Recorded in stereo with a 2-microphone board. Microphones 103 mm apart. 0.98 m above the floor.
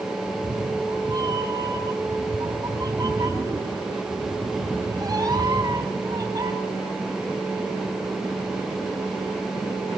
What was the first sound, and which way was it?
A cat meowing, 40° right (ahead or behind).